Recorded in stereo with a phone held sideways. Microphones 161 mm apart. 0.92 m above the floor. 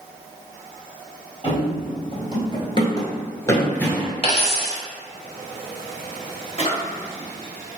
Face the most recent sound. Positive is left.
turn(degrees=35)  # may be behind; listen again after turning